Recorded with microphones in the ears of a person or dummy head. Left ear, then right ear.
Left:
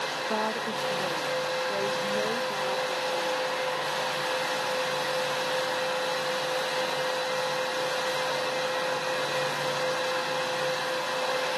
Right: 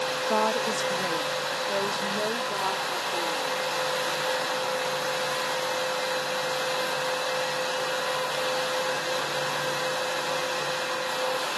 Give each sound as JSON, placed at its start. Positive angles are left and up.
{"t": 0.3, "sound": "a woman speaking", "side_deg": -75}